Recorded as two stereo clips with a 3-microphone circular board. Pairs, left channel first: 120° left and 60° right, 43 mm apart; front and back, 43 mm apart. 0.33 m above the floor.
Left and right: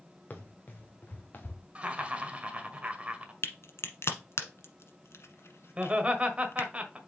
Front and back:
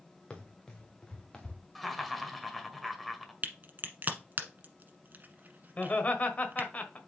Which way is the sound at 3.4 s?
130° left.